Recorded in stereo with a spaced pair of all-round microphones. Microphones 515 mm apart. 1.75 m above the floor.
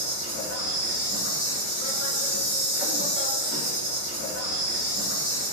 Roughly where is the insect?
Left.